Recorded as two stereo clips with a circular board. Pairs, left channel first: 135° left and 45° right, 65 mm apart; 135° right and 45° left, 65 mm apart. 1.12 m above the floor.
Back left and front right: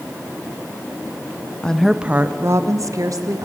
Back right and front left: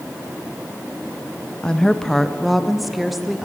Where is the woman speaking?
175° left, 0.6 m; by 3.5 s 40° right, 1.5 m.